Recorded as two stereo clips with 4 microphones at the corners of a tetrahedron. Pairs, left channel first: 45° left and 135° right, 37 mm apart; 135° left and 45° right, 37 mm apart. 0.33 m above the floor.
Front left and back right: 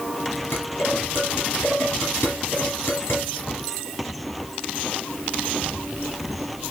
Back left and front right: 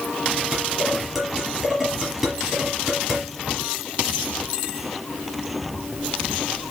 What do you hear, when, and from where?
0.5 s dishes clattering: 45° left, 4.5 m